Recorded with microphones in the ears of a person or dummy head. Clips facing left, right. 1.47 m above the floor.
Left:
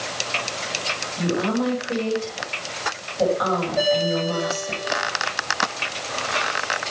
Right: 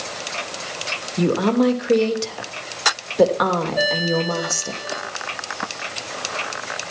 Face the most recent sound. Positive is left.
turn(degrees=-10)  # may be behind; listen again after turning